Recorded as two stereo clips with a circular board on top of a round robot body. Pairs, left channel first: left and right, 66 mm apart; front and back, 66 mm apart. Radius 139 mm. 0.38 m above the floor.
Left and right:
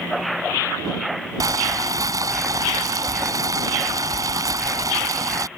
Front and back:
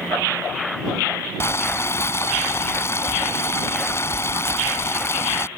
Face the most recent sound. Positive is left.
turn(degrees=-50)